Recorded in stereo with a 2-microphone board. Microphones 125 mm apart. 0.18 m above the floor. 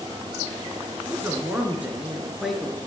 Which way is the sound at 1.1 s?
20° right (ahead or behind).